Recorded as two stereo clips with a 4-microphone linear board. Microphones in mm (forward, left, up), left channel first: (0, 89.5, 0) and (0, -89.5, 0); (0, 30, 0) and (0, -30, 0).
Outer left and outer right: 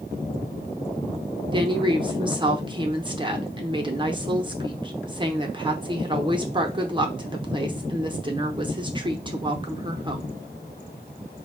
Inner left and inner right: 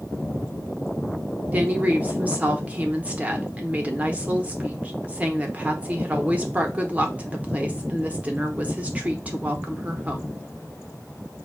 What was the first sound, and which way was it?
A woman speaking, 25° right (ahead or behind).